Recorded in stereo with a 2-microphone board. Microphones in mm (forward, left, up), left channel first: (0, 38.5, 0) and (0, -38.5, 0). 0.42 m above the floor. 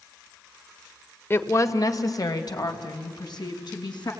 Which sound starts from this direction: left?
A woman speaking, at 1.3 s.